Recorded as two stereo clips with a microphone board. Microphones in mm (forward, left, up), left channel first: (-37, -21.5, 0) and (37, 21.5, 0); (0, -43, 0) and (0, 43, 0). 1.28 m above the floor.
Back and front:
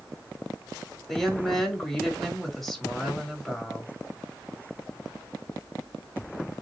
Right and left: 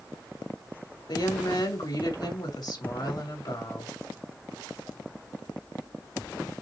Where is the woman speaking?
60° right, 4 m.